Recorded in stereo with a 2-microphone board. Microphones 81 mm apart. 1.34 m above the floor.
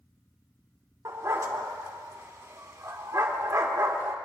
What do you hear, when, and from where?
1.1 s a dog barking: 40° right (ahead or behind), 1.3 m